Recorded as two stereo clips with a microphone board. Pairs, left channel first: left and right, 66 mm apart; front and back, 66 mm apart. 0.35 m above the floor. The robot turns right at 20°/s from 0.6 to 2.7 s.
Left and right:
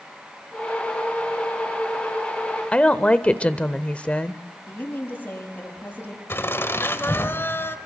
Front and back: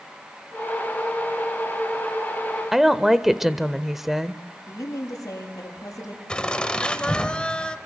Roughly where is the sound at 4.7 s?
Ahead left.